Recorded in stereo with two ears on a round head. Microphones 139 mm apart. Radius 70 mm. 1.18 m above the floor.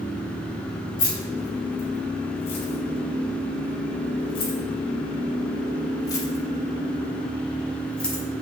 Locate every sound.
1.0 s keys jangling: 55° left (ahead or behind), 5 m; by 8.2 s 5° left (ahead or behind), 3 m